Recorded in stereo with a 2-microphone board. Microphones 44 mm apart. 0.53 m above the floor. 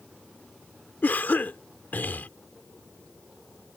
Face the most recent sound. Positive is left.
turn(degrees=45)  # may be behind; listen again after turning